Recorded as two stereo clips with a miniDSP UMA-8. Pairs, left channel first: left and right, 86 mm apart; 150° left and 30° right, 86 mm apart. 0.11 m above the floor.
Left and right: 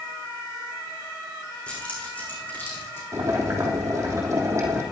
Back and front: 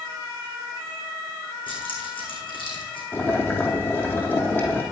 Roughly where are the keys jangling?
Behind.